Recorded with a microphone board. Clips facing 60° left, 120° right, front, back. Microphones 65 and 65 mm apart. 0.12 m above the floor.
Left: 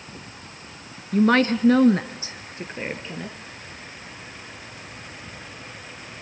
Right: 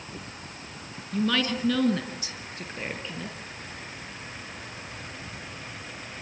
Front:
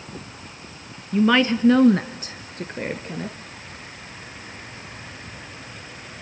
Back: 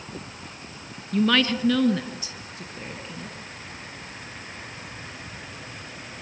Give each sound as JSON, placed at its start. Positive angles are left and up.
{"t": 1.1, "sound": "a woman speaking", "azimuth_deg": 75, "distance_m": 1.5}